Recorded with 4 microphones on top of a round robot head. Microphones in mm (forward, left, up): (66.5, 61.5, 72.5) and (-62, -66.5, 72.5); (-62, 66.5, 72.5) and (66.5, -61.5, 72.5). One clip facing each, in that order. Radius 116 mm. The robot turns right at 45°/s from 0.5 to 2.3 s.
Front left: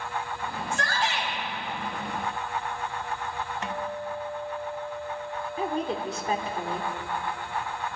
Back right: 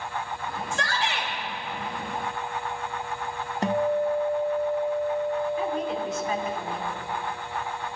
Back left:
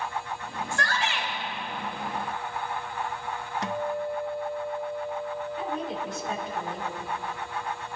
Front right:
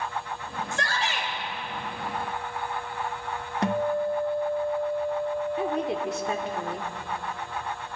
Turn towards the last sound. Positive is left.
turn(degrees=-15)